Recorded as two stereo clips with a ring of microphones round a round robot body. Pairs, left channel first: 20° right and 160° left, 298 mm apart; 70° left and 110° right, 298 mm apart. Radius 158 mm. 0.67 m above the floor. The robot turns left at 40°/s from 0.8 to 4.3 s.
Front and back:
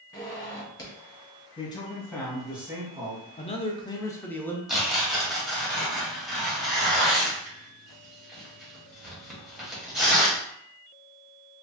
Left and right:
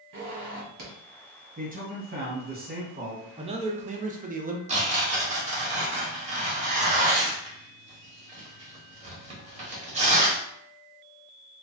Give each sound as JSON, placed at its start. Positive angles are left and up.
{"t": 0.1, "sound": "a zipper", "azimuth_deg": -95, "distance_m": 1.5}
{"t": 1.6, "sound": "a man speaking", "azimuth_deg": -80, "distance_m": 1.1}
{"t": 3.4, "sound": "a man speaking", "azimuth_deg": -60, "distance_m": 0.5}
{"t": 4.7, "sound": "tearing paper", "azimuth_deg": -115, "distance_m": 1.1}